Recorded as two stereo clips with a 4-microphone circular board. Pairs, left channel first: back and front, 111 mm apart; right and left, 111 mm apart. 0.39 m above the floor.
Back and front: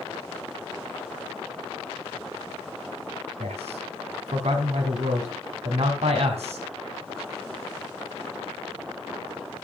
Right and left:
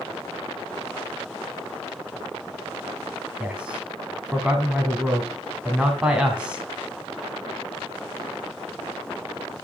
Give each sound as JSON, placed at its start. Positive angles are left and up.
{"t": 3.4, "sound": "a man speaking", "azimuth_deg": 10, "distance_m": 3.0}